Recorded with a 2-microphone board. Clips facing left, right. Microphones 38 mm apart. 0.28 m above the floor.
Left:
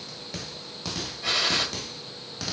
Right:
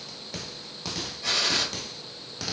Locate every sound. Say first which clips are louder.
1.2 s a gunshot: left 1 dB; 15° left (ahead or behind), 1.5 m